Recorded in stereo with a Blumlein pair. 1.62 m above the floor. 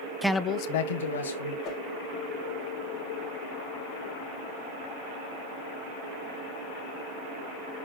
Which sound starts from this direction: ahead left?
A whoosh, at 1.6 s.